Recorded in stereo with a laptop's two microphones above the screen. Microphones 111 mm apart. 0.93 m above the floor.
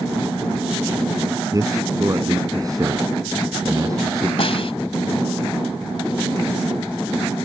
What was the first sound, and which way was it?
A man speaking, 35° right (ahead or behind).